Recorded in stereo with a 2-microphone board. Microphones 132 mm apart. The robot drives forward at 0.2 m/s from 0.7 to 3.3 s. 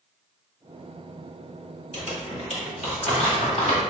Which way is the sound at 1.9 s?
60° left (ahead or behind).